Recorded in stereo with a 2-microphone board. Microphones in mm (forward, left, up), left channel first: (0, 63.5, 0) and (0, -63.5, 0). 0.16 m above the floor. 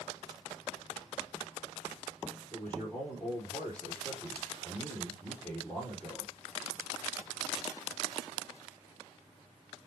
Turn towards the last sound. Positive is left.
turn(degrees=10)  # may be behind; listen again after turning